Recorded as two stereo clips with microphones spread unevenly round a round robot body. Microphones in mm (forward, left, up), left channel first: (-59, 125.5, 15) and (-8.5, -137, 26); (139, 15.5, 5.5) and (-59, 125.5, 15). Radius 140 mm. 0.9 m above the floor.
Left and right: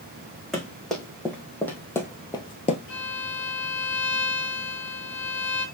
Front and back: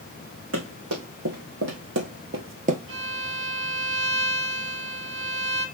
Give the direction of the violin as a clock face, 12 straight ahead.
7 o'clock.